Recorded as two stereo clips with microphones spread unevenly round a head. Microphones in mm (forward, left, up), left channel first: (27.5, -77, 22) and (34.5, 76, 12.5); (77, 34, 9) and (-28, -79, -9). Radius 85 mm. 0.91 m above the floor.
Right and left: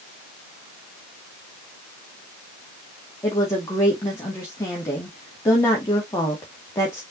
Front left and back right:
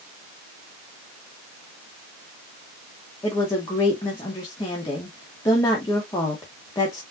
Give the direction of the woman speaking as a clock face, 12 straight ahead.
1 o'clock.